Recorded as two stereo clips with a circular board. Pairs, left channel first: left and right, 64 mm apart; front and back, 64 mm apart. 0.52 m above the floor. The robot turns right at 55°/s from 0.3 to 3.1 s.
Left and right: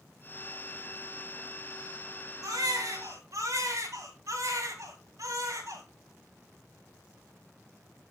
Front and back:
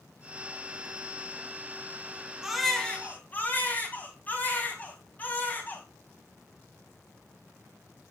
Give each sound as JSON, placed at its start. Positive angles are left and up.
{"t": 2.4, "sound": "a baby crying", "azimuth_deg": -100, "distance_m": 3.0}